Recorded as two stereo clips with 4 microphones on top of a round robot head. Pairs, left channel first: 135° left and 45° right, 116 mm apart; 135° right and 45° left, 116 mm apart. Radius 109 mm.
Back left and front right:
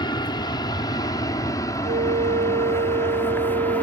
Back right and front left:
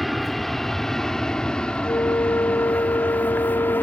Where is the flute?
60° right.